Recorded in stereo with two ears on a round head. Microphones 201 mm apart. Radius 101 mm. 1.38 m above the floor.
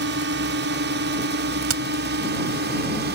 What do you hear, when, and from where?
0.0 s a drone: 55° right (ahead or behind); by 3.2 s 50° right (ahead or behind)
1.6 s a crack: 75° right (ahead or behind)